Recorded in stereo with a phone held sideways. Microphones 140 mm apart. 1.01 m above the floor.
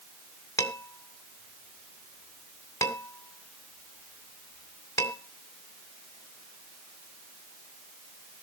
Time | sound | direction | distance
0.6 | dishes clattering | 20° left (ahead or behind) | 3 m